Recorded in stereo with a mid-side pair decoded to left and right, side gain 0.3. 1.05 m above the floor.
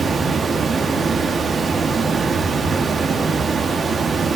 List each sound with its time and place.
0.0 s running water: 70° right, 1.2 m